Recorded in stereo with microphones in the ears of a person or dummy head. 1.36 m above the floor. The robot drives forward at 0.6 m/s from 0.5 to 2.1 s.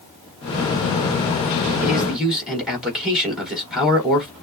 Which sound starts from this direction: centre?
A man speaking, at 1.8 s.